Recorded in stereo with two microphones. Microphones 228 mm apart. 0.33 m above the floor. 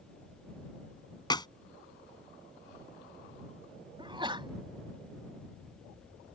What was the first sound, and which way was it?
A clap, 20° left (ahead or behind).